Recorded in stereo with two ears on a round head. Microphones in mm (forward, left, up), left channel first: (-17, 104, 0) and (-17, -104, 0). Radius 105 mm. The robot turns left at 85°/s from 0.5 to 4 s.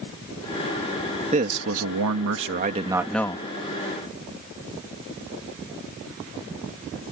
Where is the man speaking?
30° right; by 3.5 s 150° left.